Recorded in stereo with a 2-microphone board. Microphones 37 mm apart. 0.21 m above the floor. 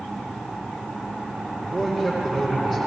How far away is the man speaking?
About 9.5 m.